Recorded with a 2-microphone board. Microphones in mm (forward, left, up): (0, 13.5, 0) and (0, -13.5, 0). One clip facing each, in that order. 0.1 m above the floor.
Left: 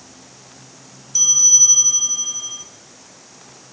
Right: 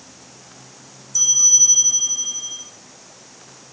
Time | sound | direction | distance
1.1 | a bell | 30° left (ahead or behind) | 1.6 m